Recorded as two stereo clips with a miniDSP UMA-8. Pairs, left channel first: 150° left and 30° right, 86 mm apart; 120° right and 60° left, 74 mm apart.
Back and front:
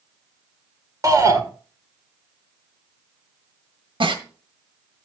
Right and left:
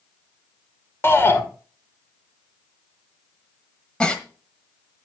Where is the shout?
70° right, 2 m.